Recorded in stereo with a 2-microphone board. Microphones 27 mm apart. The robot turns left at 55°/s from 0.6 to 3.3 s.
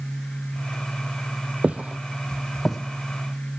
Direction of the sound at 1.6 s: 60° right (ahead or behind).